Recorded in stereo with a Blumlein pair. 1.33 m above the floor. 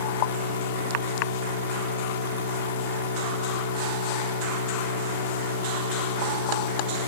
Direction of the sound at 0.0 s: 60° left.